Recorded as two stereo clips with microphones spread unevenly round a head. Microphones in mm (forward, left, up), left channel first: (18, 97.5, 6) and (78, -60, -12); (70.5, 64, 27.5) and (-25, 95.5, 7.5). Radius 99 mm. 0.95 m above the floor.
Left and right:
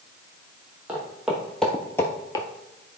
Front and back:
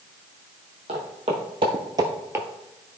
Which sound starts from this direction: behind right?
Footsteps, at 0.9 s.